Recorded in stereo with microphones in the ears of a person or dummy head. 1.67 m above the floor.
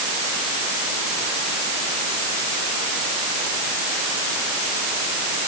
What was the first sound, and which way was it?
Only background noise.